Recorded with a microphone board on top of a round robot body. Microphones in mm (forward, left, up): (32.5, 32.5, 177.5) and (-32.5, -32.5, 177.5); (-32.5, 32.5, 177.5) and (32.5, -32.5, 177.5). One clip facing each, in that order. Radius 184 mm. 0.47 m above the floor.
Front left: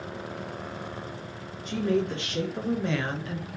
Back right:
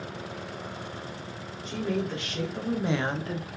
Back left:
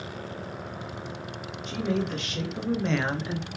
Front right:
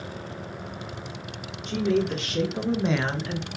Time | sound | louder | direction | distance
1.6 | a woman speaking | front left 4 dB, front right 5 dB | 10° right | 1.8 m